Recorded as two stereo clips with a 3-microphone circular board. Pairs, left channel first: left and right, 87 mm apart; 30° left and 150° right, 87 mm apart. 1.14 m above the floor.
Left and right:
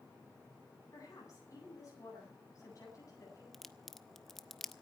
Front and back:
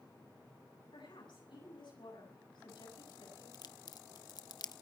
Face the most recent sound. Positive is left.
turn(degrees=5)